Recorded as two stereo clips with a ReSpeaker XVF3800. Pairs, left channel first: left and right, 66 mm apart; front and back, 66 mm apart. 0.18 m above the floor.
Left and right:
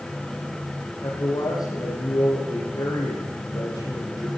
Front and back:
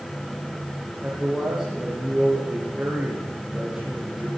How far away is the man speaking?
About 6 m.